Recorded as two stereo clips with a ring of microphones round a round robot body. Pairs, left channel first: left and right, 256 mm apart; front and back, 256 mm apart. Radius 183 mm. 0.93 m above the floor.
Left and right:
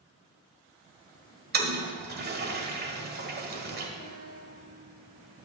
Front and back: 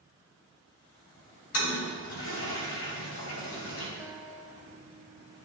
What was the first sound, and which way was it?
A toilet flushing, 45° right.